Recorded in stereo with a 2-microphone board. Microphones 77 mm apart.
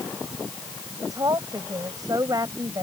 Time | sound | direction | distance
1.0 | a woman speaking | 50° right (ahead or behind) | ?